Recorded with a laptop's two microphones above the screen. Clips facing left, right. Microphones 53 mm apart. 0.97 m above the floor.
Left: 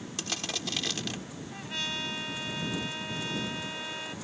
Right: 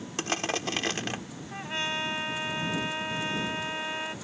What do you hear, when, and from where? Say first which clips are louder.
0.2 s crushing: right 7 dB; 40° right (ahead or behind)
1.5 s a trumpet: right 5 dB; 30° right (ahead or behind)